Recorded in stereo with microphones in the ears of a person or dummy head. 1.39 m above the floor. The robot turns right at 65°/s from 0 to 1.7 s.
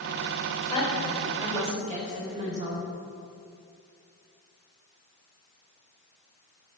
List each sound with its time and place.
0.7 s a woman speaking: 145° left, 4.5 m; by 2.8 s 150° right, 4.5 m